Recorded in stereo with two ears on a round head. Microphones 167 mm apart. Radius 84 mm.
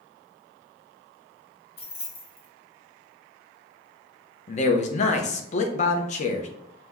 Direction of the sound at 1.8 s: 35° left (ahead or behind).